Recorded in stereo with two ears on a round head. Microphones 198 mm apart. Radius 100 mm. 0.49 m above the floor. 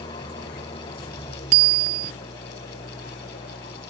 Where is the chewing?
No chewing in this recording.